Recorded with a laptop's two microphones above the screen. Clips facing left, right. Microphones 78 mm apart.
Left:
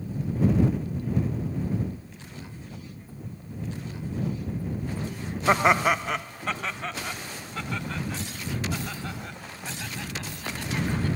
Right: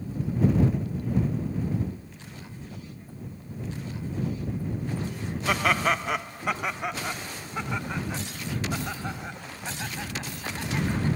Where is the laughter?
30° left (ahead or behind); by 11.2 s 20° right (ahead or behind).